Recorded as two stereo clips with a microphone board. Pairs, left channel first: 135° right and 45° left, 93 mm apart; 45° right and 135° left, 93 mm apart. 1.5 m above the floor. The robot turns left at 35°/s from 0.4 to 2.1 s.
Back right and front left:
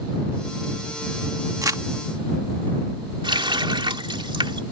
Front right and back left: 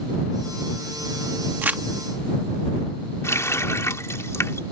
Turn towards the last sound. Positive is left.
turn(degrees=15)